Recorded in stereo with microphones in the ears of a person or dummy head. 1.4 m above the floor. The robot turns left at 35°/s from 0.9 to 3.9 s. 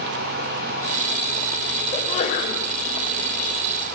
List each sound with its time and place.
1.9 s a sneeze: 30° left (ahead or behind), 6 m; by 2.6 s 55° left (ahead or behind), 6 m